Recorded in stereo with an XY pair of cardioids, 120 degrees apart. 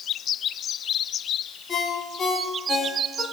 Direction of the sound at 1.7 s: 30° left.